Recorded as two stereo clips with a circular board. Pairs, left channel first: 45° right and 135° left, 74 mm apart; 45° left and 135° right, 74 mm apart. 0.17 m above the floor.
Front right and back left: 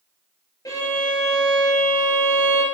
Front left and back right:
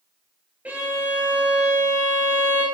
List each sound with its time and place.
0.7 s a violin: 70° right, 2.0 m